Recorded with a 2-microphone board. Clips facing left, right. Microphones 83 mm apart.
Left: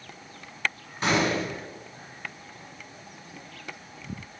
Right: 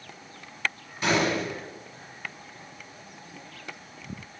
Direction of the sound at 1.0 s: 35° left (ahead or behind).